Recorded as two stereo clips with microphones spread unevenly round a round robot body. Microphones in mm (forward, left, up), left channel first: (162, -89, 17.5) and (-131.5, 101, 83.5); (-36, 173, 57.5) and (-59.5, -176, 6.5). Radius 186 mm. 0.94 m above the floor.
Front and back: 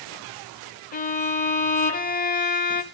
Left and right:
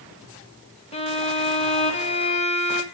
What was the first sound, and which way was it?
A violin, 10° left.